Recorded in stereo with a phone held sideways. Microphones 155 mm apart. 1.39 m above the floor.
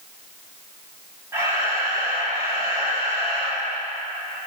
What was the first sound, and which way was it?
A camera shutter, 20° right (ahead or behind).